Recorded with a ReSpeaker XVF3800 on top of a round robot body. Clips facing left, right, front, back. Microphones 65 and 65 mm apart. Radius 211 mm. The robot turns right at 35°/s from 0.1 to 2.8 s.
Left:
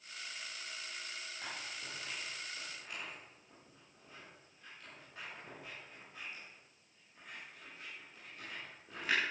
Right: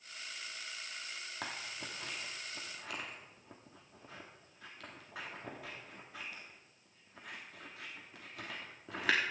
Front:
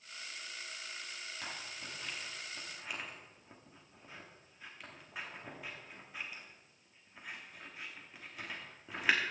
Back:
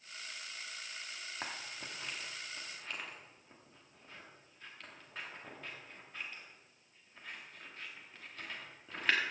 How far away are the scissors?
About 1.1 m.